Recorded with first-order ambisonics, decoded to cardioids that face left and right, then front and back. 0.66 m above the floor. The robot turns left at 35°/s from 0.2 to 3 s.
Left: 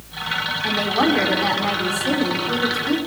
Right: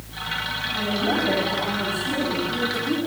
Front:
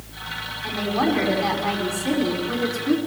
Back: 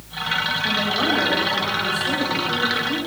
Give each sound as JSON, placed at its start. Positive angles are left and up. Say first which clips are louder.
{"t": 0.6, "sound": "a woman speaking", "louder": "left 6 dB, front 2 dB", "azimuth_deg": 75, "distance_m": 5.0}